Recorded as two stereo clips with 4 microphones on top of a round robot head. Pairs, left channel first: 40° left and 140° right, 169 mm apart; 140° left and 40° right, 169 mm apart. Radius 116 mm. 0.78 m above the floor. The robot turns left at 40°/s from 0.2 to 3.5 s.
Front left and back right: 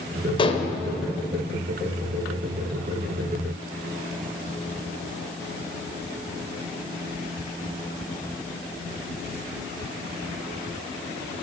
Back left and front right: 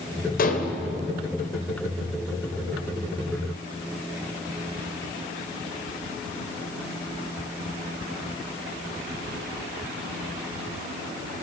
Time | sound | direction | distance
0.4 | dishes clattering | 105° left | 2.5 m